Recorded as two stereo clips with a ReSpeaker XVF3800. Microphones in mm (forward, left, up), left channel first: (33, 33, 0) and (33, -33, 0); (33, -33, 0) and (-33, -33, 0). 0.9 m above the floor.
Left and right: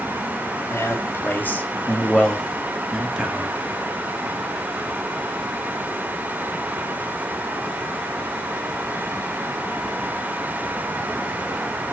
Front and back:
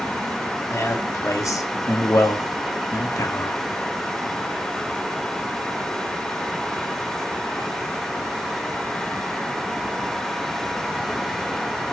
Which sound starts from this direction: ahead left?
A man speaking, at 0.7 s.